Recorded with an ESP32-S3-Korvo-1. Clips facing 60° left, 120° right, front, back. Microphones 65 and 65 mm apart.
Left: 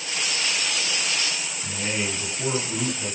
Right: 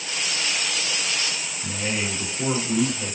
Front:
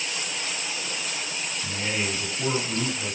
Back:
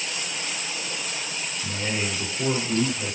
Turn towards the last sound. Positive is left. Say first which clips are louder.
# right 1 dB, even
turn(degrees=-40)